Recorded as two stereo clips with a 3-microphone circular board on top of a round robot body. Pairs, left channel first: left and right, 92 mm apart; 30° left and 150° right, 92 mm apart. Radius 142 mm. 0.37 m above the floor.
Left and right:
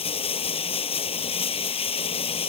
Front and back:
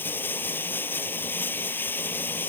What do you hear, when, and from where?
0.0 s running water: 100° left